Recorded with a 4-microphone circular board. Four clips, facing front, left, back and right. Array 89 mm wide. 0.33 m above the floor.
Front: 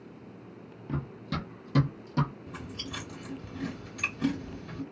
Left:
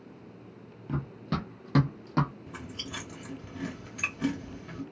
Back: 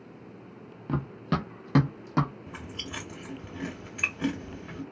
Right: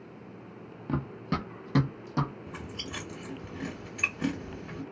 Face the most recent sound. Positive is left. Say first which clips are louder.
# right 1 dB, even
turn(degrees=-170)